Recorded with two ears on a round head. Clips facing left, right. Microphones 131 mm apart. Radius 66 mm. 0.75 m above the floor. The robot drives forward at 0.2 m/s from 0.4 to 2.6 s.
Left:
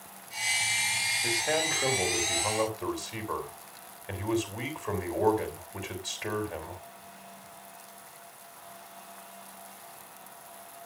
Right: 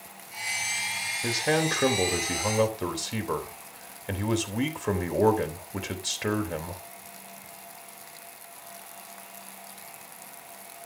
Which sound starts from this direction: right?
A man speaking, at 1.2 s.